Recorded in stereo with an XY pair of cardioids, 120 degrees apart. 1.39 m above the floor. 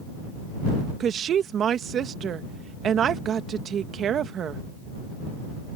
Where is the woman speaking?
50° right.